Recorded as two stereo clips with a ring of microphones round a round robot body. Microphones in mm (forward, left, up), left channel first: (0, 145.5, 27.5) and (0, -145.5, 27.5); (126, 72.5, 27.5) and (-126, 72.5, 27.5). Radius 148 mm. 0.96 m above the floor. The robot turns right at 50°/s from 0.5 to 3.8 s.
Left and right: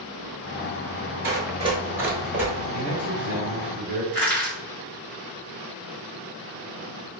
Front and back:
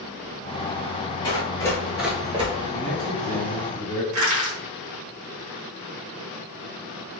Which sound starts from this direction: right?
Running footsteps, at 1.2 s.